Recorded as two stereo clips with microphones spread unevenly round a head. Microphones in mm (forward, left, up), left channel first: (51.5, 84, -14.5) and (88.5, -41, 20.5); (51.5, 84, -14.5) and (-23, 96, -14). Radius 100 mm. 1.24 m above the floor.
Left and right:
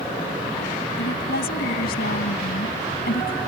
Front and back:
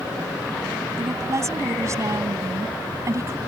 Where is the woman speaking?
125° left.